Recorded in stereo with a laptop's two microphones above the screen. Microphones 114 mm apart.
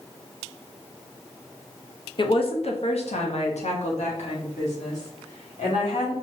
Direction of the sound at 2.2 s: 45° left (ahead or behind).